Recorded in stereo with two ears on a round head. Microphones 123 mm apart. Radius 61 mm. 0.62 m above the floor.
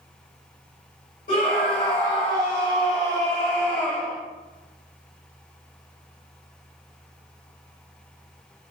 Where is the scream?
70° left (ahead or behind), 3 m; by 4.2 s centre (ahead or behind), 1.1 m.